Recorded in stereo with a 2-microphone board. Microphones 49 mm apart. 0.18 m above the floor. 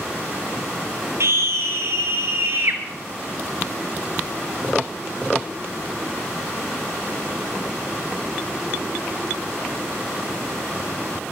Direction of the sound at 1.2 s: 60° right (ahead or behind).